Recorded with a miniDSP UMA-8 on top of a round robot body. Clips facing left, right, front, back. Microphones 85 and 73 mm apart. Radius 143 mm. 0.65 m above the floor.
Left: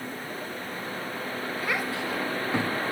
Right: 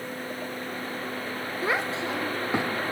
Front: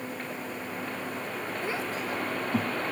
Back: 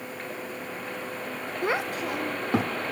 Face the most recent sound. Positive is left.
turn(degrees=-165)